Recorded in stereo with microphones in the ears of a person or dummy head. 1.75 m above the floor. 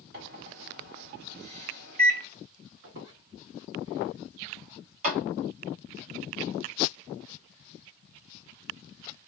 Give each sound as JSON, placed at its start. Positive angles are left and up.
{"t": 0.1, "sound": "a microwave", "side_deg": -55, "distance_m": 1.2}
{"t": 2.8, "sound": "a squeak", "side_deg": -60, "distance_m": 1.1}
{"t": 5.0, "sound": "a clap", "side_deg": -45, "distance_m": 1.1}